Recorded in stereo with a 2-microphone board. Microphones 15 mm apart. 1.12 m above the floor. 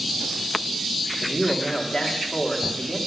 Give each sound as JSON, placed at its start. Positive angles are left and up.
{"t": 1.2, "sound": "a man speaking", "side_deg": 80, "distance_m": 1.9}